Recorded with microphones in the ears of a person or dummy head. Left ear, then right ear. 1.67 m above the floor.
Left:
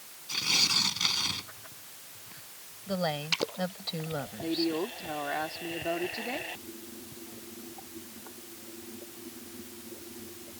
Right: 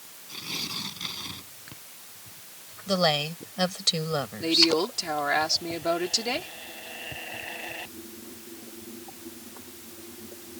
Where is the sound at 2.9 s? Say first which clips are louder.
Right 6 dB; 50° right (ahead or behind).